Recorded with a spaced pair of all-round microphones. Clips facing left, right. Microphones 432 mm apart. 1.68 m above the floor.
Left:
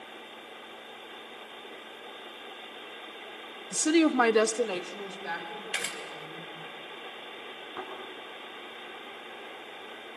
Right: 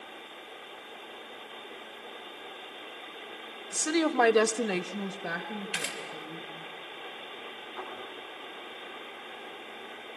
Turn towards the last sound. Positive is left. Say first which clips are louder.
# left 2 dB
turn(degrees=65)  # may be behind; listen again after turning